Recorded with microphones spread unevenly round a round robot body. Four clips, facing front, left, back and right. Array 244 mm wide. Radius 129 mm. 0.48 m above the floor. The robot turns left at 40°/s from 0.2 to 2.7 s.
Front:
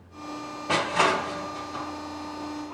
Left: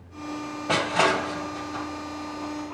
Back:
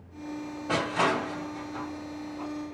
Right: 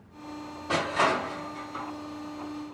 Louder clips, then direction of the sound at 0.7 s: Left 3 dB, front 3 dB; 85° left.